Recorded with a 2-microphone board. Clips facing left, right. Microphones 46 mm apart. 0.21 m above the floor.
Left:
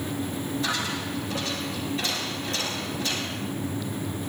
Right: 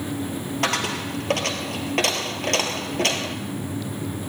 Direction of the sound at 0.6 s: 80° right.